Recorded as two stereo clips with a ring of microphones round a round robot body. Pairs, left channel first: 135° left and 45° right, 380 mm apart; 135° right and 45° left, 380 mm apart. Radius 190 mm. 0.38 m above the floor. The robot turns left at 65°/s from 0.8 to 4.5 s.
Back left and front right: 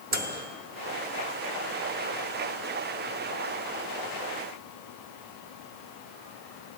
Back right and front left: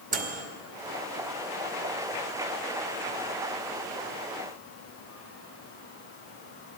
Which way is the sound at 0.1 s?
5° right.